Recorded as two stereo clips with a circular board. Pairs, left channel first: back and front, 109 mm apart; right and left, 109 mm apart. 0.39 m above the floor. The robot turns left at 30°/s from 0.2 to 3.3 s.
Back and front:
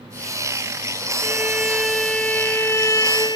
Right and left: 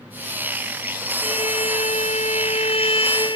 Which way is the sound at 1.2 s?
70° right.